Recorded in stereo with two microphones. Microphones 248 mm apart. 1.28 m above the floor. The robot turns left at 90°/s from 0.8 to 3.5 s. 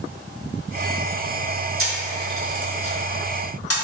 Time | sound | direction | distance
1.8 | a camera shutter | 60° right (ahead or behind) | 0.7 m